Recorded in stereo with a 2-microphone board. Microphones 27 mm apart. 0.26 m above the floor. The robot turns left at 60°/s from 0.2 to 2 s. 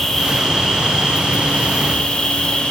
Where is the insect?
160° left, 7.5 m; by 2.7 s 55° left, 7.5 m.